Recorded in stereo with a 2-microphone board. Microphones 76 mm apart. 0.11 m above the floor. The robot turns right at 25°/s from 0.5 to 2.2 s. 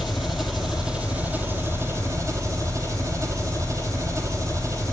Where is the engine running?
175° right, 1.0 m; by 4.9 s 135° right, 1.0 m.